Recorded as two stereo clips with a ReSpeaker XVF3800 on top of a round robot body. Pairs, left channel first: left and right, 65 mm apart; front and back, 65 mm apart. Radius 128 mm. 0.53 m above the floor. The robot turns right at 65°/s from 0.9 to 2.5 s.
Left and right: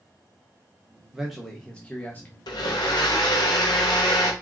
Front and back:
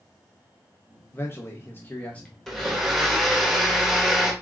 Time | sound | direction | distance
1.1 | a man speaking | 15° right | 1.0 m
2.5 | a blender | 85° left | 1.3 m